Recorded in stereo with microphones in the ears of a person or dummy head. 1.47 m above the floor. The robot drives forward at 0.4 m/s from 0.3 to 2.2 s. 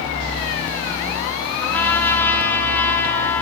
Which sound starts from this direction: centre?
A trumpet, at 1.6 s.